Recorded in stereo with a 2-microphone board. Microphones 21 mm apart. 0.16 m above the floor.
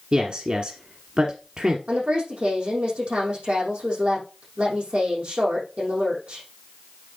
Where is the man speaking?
45° right (ahead or behind), 1.4 m.